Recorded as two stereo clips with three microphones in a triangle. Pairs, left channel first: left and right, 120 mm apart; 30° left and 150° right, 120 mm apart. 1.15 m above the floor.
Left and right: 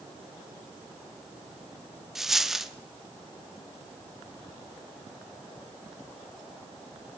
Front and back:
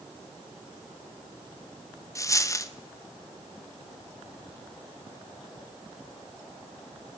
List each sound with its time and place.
2.1 s a dropped coin: 5° right, 0.6 m